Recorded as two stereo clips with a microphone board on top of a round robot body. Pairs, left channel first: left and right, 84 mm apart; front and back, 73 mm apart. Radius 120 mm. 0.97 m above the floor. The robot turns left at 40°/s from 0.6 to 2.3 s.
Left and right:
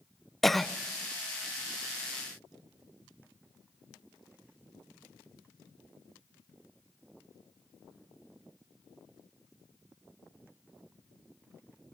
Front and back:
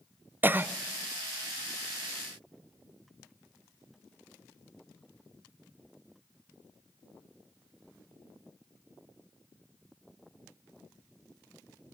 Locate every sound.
0.4 s a cough: 175° left, 0.6 m; by 0.7 s 170° left, 0.6 m